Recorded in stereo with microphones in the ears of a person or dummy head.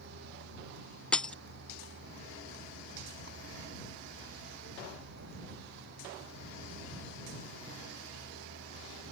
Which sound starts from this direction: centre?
Breaking glass, at 1.1 s.